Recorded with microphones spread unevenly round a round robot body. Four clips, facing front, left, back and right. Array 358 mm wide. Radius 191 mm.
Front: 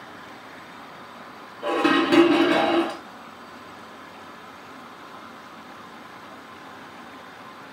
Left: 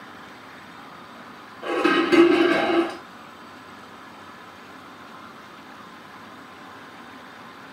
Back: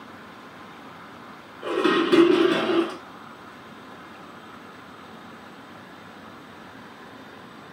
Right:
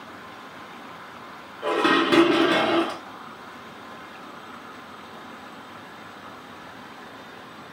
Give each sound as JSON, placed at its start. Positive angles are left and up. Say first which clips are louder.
{"t": 1.6, "sound": "dishes clattering", "louder": "even, front 1 dB", "azimuth_deg": -45, "distance_m": 1.9}